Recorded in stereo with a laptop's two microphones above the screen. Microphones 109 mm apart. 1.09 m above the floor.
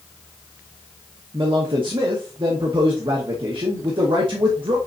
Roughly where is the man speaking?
Right.